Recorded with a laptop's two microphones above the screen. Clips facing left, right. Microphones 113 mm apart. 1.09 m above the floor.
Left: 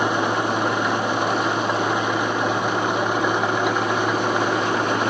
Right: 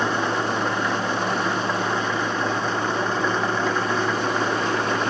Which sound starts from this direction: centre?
An engine running, at 0.0 s.